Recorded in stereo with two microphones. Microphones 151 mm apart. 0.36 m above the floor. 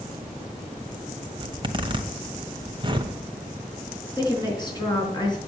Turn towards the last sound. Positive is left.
turn(degrees=30)  # may be behind; listen again after turning